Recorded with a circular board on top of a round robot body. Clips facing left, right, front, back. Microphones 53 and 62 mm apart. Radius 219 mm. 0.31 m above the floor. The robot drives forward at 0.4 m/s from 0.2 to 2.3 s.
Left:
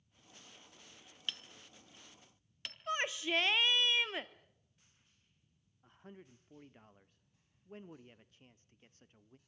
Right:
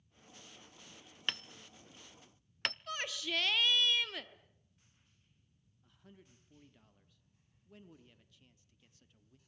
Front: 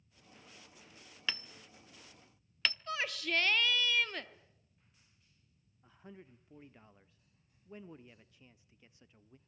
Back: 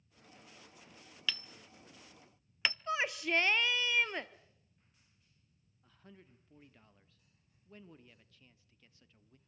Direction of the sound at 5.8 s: 60° left.